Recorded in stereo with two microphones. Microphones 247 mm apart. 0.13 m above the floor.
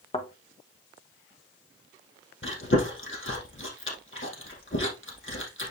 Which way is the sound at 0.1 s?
25° left (ahead or behind).